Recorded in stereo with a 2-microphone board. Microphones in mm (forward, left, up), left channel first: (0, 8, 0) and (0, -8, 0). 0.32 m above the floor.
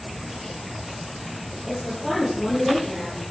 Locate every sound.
1.7 s a woman speaking: 20° right (ahead or behind), 7.5 m